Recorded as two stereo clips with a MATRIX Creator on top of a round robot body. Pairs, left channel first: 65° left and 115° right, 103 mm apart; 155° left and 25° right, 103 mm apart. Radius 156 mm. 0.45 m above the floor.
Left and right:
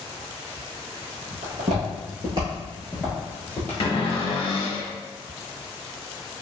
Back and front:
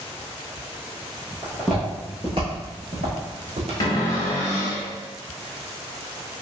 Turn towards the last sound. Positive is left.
turn(degrees=105)